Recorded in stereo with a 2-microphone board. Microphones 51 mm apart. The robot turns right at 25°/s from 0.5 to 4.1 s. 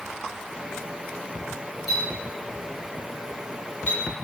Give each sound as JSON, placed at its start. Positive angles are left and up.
{"t": 1.9, "sound": "a clink", "side_deg": 5, "distance_m": 0.8}